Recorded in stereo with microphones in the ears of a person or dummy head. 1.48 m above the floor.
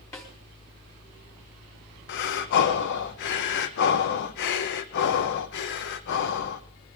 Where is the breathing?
60° left (ahead or behind), 1.0 m.